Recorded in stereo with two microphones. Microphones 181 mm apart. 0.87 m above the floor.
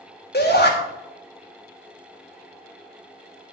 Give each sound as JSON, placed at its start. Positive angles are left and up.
{"t": 0.3, "sound": "a shout", "side_deg": 65, "distance_m": 2.5}